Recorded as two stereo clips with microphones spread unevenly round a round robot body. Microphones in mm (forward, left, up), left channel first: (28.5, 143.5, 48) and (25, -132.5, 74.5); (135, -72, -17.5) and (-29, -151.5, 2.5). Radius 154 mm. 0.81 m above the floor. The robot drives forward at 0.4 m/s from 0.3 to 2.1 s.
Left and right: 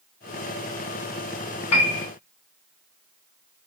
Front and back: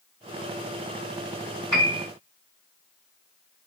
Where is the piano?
120° left, 1.1 m; by 2.1 s 125° left, 1.2 m.